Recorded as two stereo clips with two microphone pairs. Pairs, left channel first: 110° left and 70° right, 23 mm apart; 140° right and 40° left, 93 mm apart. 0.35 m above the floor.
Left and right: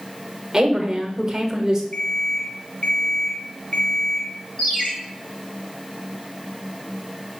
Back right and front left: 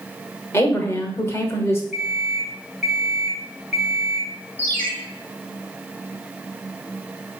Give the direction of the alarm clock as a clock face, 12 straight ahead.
8 o'clock.